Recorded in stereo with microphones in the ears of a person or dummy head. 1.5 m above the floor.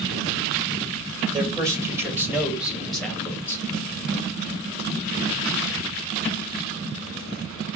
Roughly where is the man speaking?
Centre.